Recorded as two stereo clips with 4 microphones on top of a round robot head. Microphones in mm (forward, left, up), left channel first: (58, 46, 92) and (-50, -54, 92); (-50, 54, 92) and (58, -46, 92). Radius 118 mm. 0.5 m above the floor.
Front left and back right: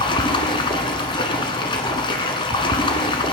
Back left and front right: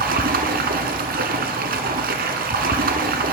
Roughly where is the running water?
Ahead.